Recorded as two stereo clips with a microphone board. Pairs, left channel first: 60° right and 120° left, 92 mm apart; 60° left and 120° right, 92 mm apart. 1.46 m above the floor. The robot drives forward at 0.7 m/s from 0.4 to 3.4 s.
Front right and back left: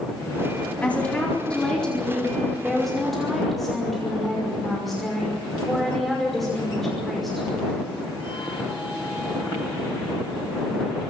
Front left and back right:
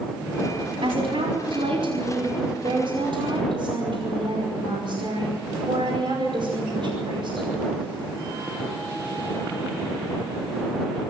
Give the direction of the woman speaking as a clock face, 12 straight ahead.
5 o'clock.